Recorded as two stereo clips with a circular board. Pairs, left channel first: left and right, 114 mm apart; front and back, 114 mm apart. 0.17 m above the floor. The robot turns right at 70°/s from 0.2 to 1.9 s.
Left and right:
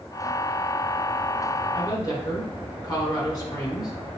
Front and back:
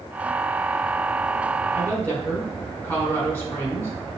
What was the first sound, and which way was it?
A woman speaking, 50° left.